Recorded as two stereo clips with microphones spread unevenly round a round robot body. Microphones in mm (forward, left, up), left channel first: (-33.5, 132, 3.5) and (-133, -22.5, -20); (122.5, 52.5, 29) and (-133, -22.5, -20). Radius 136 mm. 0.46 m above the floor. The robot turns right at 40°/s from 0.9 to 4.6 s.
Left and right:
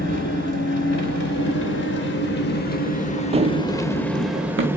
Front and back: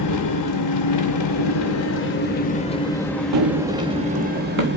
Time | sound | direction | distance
0.0 | an engine running | 15° left | 1.6 m
3.3 | running footsteps | 175° left | 0.7 m